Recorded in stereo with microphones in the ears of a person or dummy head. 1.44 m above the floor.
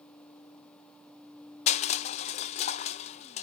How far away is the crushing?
About 0.5 m.